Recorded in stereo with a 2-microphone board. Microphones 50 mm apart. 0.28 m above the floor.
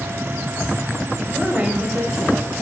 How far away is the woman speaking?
About 1.0 m.